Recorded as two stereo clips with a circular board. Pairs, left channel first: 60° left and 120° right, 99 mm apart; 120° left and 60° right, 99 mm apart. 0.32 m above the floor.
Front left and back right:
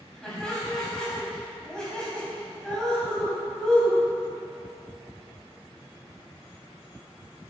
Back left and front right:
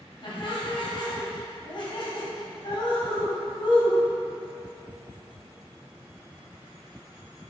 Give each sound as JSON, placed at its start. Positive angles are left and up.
{"t": 0.2, "sound": "laughter", "azimuth_deg": 140, "distance_m": 2.0}